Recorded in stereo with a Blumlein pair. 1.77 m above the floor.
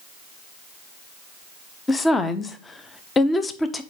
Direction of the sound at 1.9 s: 15° left.